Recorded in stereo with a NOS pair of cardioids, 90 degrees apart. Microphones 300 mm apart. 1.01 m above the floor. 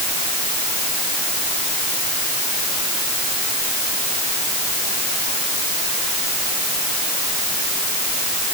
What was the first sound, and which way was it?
Only background noise.